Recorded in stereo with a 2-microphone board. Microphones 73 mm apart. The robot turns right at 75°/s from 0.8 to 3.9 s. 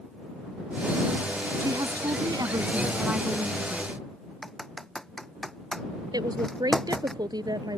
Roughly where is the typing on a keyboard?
Centre.